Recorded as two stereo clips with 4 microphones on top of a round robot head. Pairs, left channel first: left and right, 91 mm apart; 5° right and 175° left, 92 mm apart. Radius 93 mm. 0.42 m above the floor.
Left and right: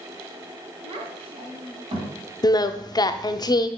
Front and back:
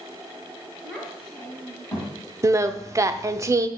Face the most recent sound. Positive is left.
turn(degrees=120)